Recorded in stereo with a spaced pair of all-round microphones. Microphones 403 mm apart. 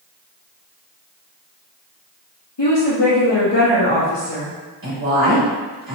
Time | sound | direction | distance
2.6 | a woman speaking | 80° left | 1.0 m
4.8 | a woman speaking | 55° right (ahead or behind) | 1.5 m